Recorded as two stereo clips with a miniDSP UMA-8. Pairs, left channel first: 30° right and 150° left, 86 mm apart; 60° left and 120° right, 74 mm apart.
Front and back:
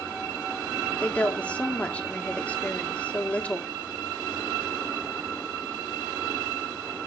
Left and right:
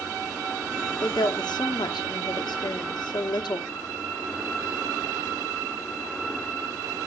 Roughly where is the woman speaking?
Ahead left.